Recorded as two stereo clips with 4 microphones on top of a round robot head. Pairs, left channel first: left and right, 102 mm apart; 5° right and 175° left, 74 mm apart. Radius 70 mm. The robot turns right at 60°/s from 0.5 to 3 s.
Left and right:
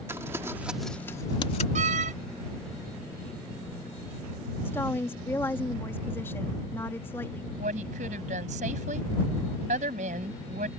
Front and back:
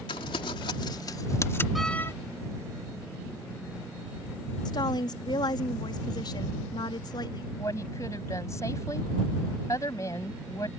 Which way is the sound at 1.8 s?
100° right.